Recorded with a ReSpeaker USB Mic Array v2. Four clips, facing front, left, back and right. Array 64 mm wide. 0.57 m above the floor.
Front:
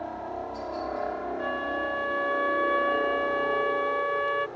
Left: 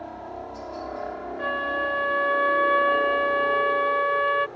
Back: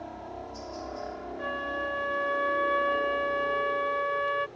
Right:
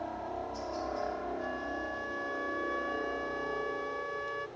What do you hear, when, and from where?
0.0 s a helicopter: 10° left; by 4.6 s 35° left
1.4 s a flute: 85° left